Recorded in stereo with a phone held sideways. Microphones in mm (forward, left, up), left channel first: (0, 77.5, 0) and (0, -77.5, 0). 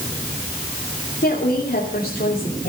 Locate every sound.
1.2 s a woman speaking: 85° left, 3 m